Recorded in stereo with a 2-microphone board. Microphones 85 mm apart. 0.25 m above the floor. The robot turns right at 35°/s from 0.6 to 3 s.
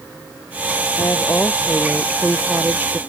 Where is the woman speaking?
145° left; by 3.0 s 145° right.